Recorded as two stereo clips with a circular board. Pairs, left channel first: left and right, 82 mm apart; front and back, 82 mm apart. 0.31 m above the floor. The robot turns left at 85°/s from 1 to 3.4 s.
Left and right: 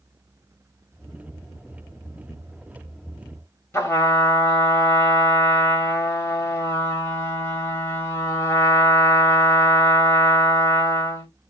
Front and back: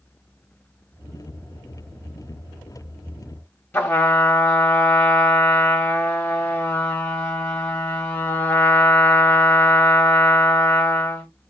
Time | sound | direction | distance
3.7 | a trumpet | 55° left | 1.2 m